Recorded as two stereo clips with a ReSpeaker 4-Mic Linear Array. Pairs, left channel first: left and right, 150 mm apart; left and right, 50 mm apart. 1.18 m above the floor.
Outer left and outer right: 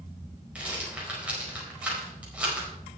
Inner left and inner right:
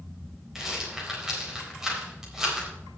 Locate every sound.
0.6 s a rattle: 10° right (ahead or behind), 4.5 m